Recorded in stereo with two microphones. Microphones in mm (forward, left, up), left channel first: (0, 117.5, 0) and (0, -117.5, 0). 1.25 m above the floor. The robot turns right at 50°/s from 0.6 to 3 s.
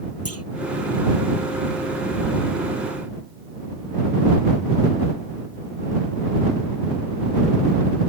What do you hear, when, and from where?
0.2 s a clunk: 80° left